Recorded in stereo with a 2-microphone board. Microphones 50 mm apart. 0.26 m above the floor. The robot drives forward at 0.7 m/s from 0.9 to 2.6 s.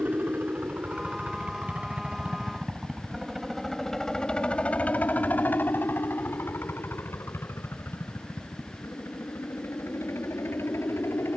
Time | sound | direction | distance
0.0 | a helicopter | 35° right (ahead or behind) | ?